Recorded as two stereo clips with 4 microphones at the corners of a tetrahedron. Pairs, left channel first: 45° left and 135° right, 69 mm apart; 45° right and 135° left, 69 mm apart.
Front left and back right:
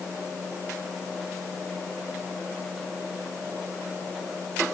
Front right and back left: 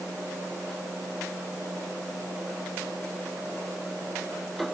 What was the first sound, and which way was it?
Only background noise.